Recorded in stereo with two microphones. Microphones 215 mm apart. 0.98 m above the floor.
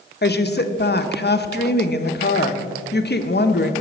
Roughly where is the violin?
I don't hear a violin.